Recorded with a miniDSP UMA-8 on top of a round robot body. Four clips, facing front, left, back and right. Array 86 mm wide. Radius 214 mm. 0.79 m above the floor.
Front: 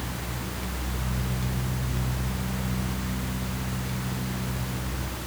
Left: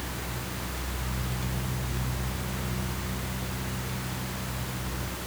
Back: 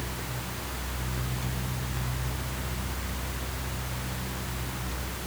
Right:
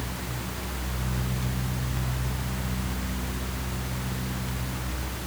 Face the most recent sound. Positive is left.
No sound to turn to.